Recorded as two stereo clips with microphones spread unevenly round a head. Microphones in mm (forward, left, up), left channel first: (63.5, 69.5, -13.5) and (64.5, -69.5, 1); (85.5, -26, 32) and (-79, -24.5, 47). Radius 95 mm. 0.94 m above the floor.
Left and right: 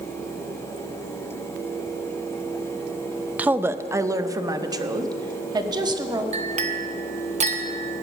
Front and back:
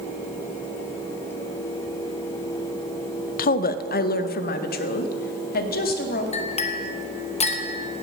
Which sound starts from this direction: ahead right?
A clink, at 6.3 s.